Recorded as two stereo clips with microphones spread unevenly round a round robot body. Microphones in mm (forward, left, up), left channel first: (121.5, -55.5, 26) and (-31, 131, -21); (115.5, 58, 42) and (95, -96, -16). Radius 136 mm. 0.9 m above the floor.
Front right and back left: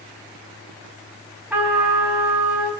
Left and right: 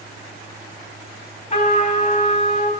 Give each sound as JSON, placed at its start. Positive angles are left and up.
{"t": 1.5, "sound": "a trumpet", "azimuth_deg": 45, "distance_m": 4.5}